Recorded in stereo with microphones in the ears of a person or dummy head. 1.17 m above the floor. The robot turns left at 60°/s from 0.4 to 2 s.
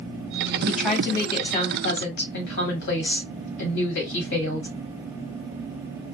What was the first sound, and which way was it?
A woman speaking, 160° right.